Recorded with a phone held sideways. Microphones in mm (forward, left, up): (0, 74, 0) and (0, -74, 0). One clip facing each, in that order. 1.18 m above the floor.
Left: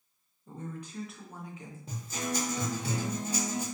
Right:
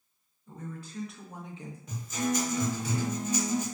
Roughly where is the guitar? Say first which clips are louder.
Right 5 dB; left.